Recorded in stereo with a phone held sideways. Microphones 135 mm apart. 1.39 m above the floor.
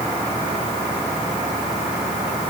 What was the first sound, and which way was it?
Only background noise.